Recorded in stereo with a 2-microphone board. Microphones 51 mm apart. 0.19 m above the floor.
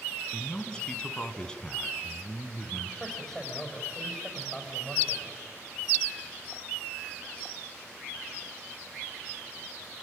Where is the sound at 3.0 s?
15° left (ahead or behind), 6.5 m.